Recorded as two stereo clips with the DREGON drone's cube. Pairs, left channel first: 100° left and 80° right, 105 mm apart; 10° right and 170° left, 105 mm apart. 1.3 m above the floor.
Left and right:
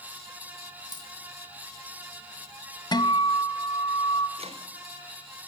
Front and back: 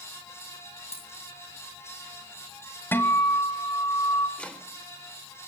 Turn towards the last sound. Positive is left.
turn(degrees=-90)